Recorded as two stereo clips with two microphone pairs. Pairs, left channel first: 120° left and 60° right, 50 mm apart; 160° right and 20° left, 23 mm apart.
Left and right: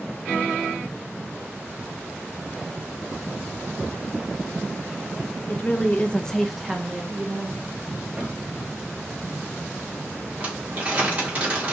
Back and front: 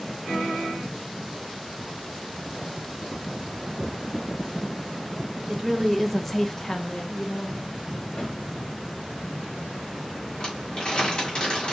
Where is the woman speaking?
95° left, 0.7 m; by 7.6 s 115° right, 0.8 m.